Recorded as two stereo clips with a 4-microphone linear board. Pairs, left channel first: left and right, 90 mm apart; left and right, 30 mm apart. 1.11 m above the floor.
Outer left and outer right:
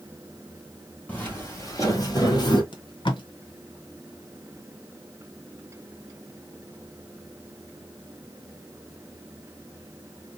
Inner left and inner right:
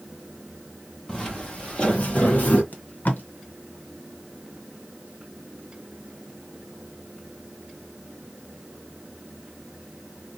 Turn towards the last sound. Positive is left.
turn(degrees=65)  # may be behind; listen again after turning